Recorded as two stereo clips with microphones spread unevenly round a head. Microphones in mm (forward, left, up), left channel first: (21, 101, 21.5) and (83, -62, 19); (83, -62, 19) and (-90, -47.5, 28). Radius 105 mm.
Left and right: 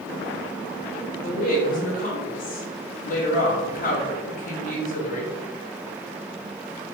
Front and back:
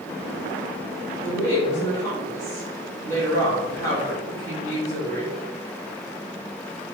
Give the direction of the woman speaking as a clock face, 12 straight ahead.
10 o'clock.